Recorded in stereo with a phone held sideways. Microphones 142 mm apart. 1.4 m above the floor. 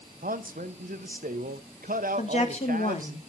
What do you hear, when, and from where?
0.2 s a man speaking: 85° right, 0.8 m
2.2 s a woman speaking: 55° left (ahead or behind), 1.5 m